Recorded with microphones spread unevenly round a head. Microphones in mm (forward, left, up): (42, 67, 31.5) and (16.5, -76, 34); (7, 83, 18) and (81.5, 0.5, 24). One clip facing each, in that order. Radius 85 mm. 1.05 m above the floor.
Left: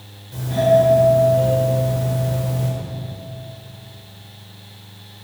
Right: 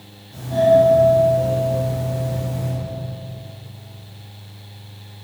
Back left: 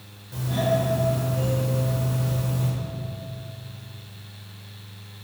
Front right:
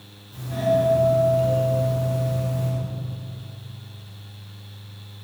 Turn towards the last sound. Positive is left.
turn(degrees=120)